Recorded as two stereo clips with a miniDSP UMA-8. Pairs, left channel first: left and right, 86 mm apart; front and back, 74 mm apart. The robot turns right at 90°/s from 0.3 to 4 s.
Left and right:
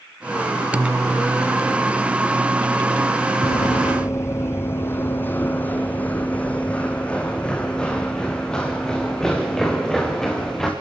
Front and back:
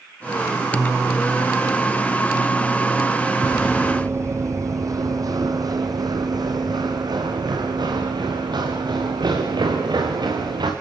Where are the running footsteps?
80° left, 2 m; by 10.7 s 175° left, 6 m.